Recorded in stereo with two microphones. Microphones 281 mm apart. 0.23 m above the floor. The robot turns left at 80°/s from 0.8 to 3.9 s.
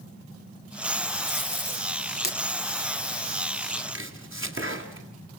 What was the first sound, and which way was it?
Tape being pulled, 40° right (ahead or behind).